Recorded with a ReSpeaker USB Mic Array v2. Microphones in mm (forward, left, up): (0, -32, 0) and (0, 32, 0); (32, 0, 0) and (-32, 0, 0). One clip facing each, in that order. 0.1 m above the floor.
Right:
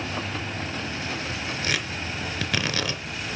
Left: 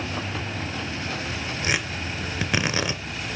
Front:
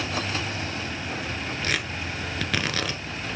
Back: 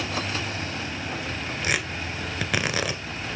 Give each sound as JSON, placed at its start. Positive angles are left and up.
{"t": 1.6, "sound": "tearing paper", "azimuth_deg": 120, "distance_m": 1.0}